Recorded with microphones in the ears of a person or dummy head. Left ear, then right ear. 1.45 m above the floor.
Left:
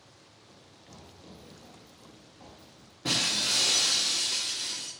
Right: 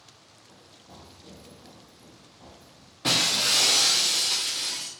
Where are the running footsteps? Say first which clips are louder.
Right 3 dB; centre (ahead or behind), 1.5 m; by 2.9 s 45° left (ahead or behind), 2.0 m.